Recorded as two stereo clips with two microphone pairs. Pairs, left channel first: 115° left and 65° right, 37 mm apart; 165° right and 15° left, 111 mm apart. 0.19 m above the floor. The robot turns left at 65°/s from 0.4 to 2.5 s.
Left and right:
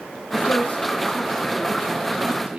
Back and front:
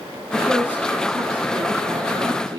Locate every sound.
0.3 s a woman speaking: 105° left, 3 m; by 2.6 s 35° right, 3 m